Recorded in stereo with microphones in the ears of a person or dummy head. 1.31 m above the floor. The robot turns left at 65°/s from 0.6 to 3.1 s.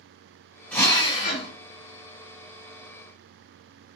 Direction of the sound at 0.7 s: 175° left.